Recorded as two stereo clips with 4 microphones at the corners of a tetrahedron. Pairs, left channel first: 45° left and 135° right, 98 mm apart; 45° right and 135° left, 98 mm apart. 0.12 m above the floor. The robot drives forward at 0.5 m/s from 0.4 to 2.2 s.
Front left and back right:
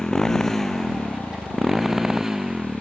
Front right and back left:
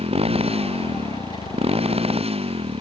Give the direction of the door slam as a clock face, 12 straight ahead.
I don't hear a door slam.